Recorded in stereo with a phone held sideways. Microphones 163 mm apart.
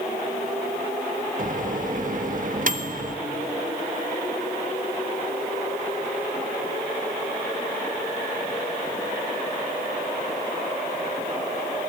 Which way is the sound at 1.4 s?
55° right (ahead or behind).